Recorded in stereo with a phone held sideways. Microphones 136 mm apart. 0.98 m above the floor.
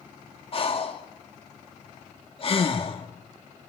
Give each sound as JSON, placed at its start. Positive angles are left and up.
{"t": 0.5, "sound": "breathing", "side_deg": 45, "distance_m": 2.0}